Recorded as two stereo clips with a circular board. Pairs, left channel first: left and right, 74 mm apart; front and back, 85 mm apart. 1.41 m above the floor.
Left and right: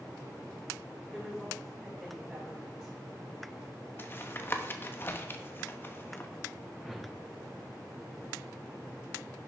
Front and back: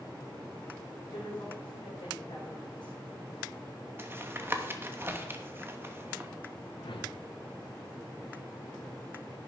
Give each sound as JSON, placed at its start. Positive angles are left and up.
{"t": 1.1, "sound": "a woman speaking", "azimuth_deg": -10, "distance_m": 4.5}
{"t": 4.0, "sound": "tapping", "azimuth_deg": 130, "distance_m": 0.9}
{"t": 6.8, "sound": "a whoosh", "azimuth_deg": -5, "distance_m": 0.8}